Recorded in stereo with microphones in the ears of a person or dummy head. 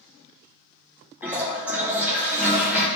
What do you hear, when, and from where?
1.2 s a toilet flushing: 5° right (ahead or behind), 2 m